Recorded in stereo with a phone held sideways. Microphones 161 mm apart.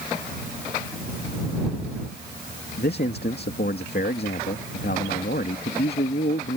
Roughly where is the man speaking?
Left.